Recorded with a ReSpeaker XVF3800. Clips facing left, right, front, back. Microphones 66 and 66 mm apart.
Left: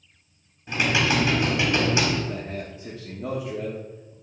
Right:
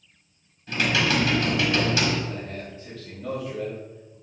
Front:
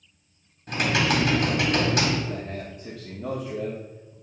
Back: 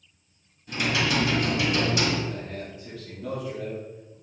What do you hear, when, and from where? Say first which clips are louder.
0.7 s typing on a keyboard: even, front 2 dB; 25° left, 1.7 m
2.3 s a man speaking: left 2 dB, front 2 dB; 50° left, 1.3 m